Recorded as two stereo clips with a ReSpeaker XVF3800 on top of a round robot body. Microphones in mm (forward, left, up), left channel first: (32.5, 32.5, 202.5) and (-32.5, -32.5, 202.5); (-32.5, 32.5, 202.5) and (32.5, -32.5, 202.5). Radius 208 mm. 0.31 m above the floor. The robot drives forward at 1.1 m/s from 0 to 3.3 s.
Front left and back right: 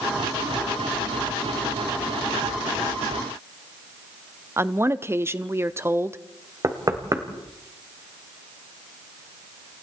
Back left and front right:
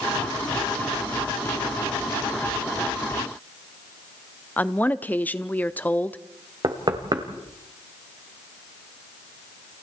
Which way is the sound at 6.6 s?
80° right.